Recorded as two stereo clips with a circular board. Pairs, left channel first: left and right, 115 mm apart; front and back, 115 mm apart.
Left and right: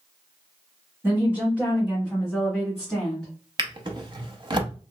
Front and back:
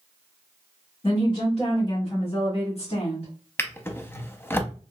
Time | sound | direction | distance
1.0 | a woman speaking | 25° right | 1.9 m
3.6 | a drawer | 65° right | 0.6 m